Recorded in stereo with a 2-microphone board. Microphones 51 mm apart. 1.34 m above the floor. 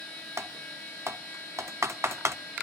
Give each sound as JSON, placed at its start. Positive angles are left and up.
{"t": 0.4, "sound": "typing on a keyboard", "side_deg": -65, "distance_m": 0.8}